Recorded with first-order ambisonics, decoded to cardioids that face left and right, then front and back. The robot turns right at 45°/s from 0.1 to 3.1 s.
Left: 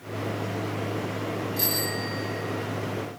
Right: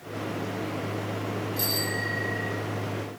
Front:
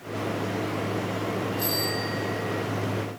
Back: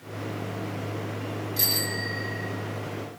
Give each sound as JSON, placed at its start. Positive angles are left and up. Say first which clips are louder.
{"t": 1.6, "sound": "a bicycle bell", "louder": "right 1 dB, back 4 dB", "azimuth_deg": 175, "distance_m": 7.0}